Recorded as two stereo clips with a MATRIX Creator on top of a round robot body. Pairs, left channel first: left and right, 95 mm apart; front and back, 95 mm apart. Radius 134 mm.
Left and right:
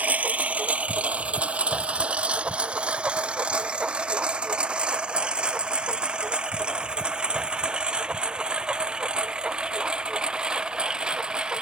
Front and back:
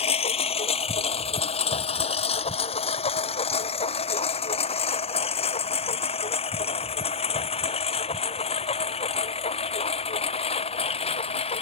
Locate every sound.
0.0 s a lawn mower: 15° right; by 11.6 s 10° right